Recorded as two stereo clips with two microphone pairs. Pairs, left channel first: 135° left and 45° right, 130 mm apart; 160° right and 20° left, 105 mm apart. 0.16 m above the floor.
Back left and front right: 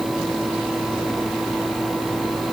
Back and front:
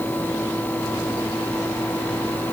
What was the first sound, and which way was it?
Only background noise.